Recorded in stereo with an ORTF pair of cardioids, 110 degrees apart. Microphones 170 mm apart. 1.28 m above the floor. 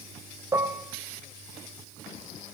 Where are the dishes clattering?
15° right, 3.5 m.